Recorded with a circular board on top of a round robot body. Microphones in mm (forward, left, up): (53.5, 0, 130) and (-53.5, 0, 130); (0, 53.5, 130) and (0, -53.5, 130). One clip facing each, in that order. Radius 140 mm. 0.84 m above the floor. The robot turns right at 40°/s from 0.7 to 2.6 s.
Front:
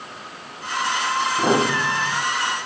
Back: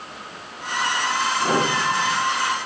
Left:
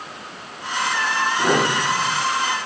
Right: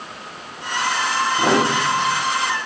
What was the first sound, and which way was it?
A piano, 25° right.